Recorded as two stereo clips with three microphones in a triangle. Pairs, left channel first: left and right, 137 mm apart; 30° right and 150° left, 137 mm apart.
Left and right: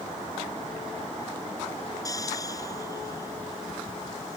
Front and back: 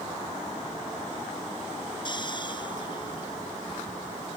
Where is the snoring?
25° left.